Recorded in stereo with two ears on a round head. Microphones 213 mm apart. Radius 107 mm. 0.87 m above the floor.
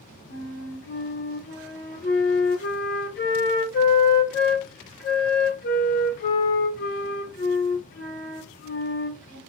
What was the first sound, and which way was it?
A flute, 40° left (ahead or behind).